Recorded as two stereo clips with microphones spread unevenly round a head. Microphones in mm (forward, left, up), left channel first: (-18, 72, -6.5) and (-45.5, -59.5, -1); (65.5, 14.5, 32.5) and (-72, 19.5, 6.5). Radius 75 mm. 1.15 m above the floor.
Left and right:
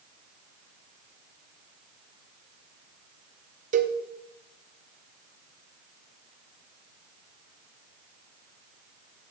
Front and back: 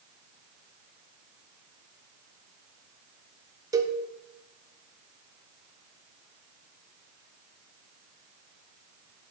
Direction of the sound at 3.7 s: 125° right.